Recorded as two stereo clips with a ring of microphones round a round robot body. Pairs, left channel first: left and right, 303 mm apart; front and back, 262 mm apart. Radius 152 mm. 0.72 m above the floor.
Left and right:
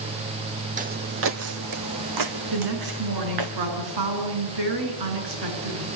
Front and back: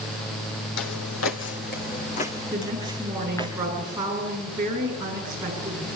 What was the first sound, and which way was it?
Footsteps, 25° right.